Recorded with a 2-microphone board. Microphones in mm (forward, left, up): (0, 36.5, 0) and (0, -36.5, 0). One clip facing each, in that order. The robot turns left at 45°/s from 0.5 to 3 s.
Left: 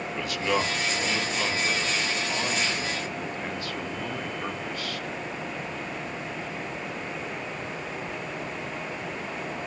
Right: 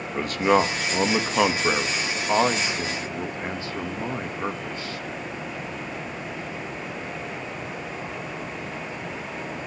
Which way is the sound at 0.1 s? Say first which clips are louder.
Right 7 dB; 40° right (ahead or behind).